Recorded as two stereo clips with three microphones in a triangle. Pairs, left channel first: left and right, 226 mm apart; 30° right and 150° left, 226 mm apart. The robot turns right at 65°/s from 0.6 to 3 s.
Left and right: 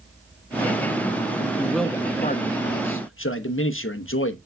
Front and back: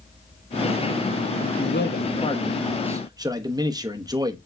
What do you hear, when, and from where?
1.6 s a man speaking: 10° right, 1.0 m; by 4.4 s 80° left, 1.0 m